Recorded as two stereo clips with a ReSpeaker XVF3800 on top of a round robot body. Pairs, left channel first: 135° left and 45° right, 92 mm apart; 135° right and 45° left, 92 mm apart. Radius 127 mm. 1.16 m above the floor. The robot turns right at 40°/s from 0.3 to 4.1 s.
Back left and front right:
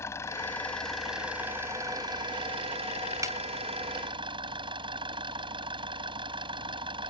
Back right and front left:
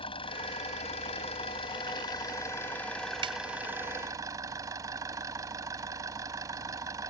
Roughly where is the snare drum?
Ahead.